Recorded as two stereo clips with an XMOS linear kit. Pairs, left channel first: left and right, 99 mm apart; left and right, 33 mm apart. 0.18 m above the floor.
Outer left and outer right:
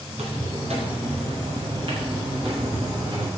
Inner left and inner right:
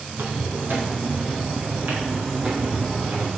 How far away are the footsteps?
About 6.5 m.